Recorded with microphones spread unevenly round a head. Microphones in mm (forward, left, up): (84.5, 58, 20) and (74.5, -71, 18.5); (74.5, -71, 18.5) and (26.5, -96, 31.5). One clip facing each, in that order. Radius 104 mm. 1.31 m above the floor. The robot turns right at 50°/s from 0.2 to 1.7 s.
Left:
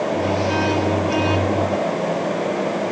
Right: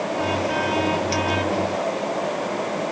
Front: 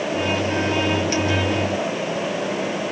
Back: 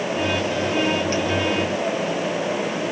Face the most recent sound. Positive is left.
No sound to turn to.